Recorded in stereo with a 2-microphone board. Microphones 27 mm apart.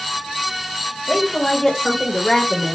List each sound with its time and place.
1.1 s a woman speaking: 10° left (ahead or behind), 1.8 m; by 2.8 s 5° left (ahead or behind), 1.3 m